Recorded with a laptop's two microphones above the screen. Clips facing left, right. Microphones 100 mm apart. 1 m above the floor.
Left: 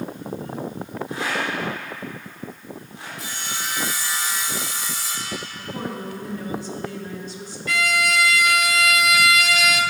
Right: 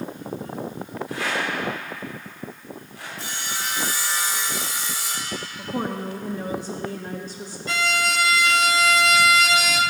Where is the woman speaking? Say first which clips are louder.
Right 5 dB; 35° right (ahead or behind), 0.9 m.